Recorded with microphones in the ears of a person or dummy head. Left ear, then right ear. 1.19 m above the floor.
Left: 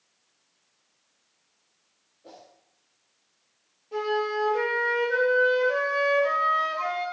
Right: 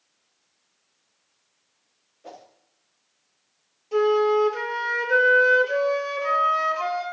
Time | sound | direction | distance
2.2 | a whoosh | 40° right (ahead or behind) | 0.8 m
3.9 | a flute | 80° right | 2.0 m